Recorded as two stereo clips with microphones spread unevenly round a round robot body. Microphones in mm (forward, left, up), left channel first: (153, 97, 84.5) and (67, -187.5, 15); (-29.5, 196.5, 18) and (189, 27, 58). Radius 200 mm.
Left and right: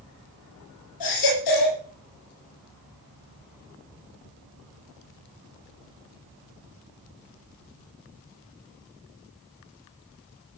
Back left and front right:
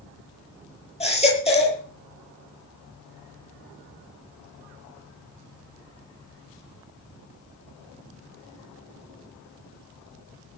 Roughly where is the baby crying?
Left.